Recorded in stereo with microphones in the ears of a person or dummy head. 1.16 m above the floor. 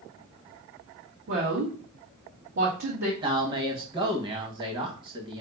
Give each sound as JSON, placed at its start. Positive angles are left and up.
{"t": 1.3, "sound": "a woman speaking", "side_deg": -55, "distance_m": 1.2}
{"t": 3.2, "sound": "a man speaking", "side_deg": -25, "distance_m": 1.3}